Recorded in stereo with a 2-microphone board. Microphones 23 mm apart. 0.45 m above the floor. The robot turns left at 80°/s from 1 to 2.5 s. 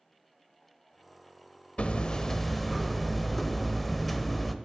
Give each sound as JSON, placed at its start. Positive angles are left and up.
{"t": 1.8, "sound": "hammering", "azimuth_deg": 60, "distance_m": 0.9}